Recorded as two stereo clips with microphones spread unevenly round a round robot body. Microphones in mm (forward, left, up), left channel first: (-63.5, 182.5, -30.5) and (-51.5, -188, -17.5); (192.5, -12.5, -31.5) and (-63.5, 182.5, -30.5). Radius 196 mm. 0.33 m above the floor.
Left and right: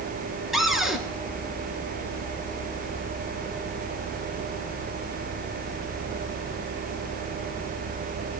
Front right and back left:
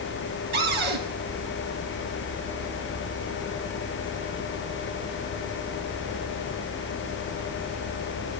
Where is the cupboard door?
Straight behind, 2.5 m.